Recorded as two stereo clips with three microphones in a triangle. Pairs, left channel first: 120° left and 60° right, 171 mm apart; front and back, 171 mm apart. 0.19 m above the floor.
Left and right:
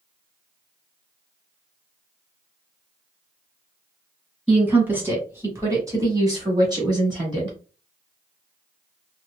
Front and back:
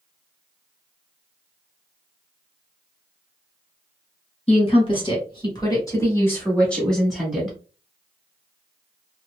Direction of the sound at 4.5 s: 15° left.